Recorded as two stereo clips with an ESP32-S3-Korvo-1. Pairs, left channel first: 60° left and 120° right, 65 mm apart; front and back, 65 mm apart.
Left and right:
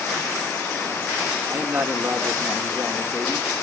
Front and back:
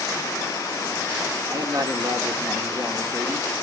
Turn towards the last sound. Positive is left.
turn(degrees=180)